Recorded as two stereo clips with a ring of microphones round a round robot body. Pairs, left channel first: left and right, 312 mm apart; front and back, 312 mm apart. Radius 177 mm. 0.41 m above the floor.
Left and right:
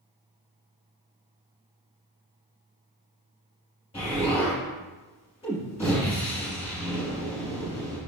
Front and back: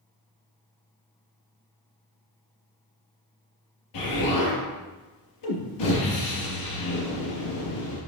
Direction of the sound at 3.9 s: 15° left.